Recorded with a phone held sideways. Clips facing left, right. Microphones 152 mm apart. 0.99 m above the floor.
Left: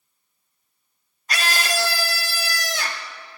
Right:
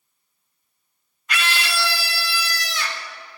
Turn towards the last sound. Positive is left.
turn(degrees=45)  # may be behind; listen again after turning